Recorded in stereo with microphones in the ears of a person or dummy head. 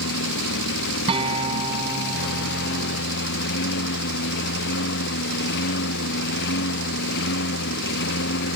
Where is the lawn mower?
65° left (ahead or behind).